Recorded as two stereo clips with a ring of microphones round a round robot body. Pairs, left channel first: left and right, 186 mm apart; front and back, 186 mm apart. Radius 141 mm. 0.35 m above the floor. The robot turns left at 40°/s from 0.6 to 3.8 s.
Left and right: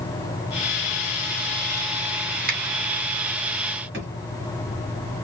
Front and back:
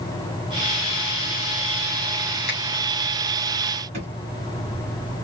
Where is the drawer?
120° right, 1.6 m.